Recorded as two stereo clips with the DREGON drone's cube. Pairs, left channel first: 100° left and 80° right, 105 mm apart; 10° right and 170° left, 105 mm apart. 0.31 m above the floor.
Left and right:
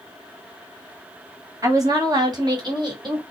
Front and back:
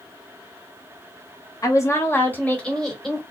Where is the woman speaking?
50° right, 1.3 m; by 3.2 s 105° right, 1.6 m.